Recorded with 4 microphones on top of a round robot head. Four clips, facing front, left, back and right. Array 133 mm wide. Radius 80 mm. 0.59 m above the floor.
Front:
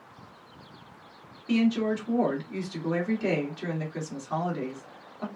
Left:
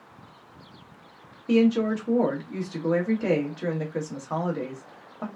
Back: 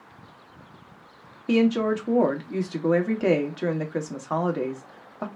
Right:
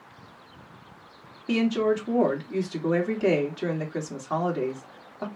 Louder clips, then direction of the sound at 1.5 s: Left 2 dB, back 4 dB; 175° right.